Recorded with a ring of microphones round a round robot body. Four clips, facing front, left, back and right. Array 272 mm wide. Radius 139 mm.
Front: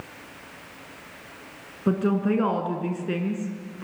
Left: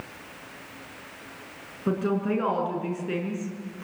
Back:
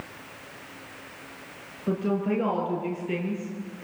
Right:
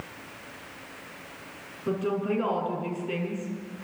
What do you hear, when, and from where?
1.9 s a woman speaking: 20° left, 5.5 m